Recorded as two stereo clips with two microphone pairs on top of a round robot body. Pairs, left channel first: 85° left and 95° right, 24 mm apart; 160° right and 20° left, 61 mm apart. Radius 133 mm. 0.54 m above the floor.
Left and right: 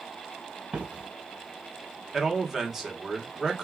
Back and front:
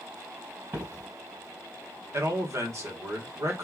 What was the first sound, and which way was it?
Footsteps, 40° right.